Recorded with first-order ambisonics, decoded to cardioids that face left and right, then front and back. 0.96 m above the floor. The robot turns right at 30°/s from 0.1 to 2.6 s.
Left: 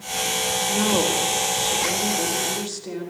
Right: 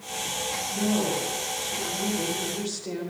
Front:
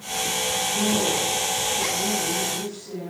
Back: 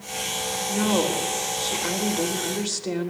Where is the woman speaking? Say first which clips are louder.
Left 6 dB, back 3 dB; 115° left, 3.5 m; by 3.1 s 175° left, 3.5 m.